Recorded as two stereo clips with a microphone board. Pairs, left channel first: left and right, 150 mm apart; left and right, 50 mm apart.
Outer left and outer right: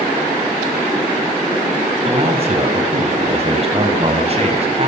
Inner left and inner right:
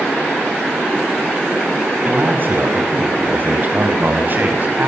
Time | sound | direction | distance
2.0 | a man speaking | 45° right (ahead or behind) | 6 m